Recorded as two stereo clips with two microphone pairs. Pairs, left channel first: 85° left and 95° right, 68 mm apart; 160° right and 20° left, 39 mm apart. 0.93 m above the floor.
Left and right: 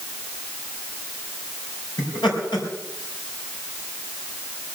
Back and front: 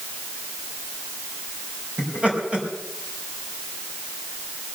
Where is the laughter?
85° left, 5 m.